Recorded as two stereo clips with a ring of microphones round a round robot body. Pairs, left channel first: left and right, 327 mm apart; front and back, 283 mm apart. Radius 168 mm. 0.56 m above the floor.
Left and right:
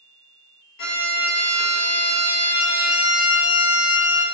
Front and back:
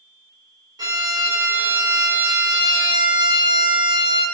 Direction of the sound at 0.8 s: 105° left.